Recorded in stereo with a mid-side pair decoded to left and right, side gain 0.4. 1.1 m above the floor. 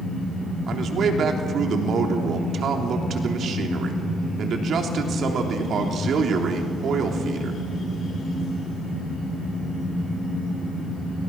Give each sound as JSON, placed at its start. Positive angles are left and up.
{"t": 0.7, "sound": "a man speaking", "azimuth_deg": -65, "distance_m": 3.0}